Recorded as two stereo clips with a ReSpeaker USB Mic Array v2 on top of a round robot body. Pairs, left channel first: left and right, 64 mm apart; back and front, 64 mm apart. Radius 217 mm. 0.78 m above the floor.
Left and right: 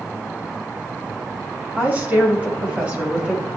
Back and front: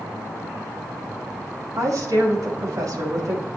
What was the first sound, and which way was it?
A woman speaking, 30° right.